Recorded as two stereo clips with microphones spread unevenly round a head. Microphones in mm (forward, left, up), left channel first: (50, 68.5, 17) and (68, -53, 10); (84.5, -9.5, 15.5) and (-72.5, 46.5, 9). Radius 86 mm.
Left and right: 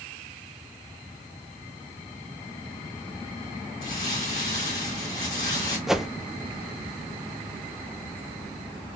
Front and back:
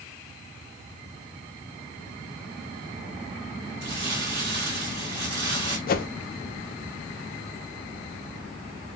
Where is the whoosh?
5° left, 0.5 m.